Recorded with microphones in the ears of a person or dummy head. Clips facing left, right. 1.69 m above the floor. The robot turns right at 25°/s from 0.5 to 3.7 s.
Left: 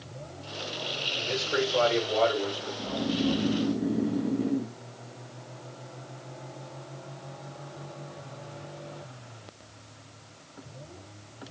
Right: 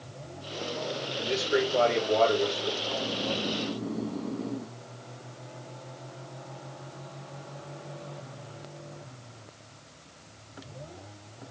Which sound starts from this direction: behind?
A man speaking, at 1.2 s.